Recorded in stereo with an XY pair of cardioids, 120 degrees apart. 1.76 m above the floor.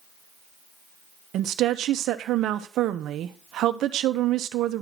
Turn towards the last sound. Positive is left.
turn(degrees=-65)